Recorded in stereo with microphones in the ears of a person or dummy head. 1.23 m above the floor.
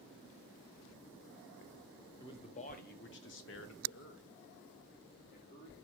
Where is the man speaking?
20° left (ahead or behind), 0.7 m; by 5.8 s 45° left (ahead or behind), 1.6 m.